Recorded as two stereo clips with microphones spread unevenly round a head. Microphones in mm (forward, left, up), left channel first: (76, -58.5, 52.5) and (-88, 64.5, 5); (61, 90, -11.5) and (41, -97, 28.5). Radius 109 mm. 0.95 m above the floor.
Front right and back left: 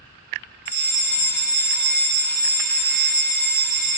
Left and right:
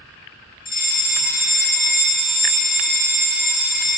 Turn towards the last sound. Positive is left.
turn(degrees=45)